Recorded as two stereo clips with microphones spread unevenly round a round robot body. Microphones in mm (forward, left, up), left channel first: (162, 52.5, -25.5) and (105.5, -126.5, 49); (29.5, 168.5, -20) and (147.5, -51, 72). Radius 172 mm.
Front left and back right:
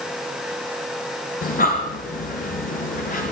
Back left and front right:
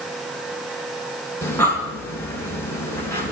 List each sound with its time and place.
1.4 s breathing: 45° left, 4.5 m